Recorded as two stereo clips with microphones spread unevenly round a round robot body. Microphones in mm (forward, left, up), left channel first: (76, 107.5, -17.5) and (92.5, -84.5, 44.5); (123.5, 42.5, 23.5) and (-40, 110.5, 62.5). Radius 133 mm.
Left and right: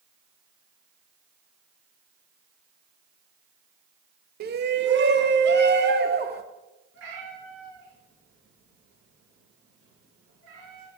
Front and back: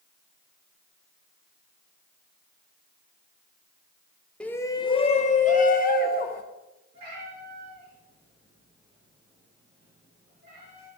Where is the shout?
75° right, 0.8 m; by 6.4 s 40° right, 2.0 m.